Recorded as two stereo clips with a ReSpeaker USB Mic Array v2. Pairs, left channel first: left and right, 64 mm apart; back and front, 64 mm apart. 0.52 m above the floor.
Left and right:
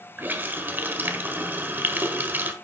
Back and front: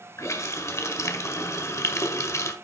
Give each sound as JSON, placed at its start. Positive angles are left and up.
{"t": 0.2, "sound": "a running tap", "azimuth_deg": -145, "distance_m": 1.3}